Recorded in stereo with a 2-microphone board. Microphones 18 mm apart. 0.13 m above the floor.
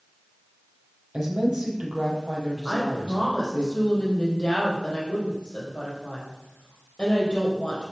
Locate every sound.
1.1 s a woman speaking: 55° right (ahead or behind), 4 m
2.6 s a woman speaking: 55° left (ahead or behind), 4.5 m